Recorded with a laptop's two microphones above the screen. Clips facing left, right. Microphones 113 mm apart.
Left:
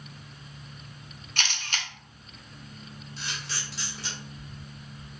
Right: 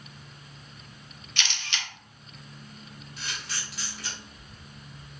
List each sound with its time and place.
1.4 s a camera shutter: 45° left (ahead or behind), 0.5 m
3.2 s a camera shutter: 30° left (ahead or behind), 1.4 m